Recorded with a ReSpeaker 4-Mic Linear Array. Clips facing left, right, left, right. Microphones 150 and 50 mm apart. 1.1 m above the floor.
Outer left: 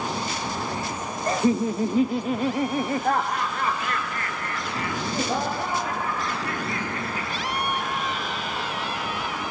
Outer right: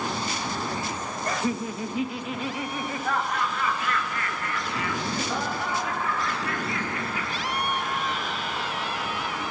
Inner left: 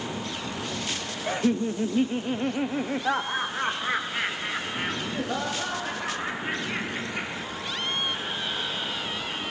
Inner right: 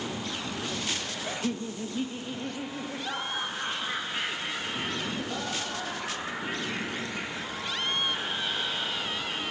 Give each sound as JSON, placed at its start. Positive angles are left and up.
{"t": 1.3, "sound": "laughter", "side_deg": 25, "distance_m": 0.7}